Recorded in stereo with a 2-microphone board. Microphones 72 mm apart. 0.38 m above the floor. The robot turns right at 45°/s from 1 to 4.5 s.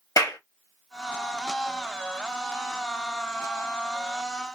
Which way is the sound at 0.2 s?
55° left (ahead or behind).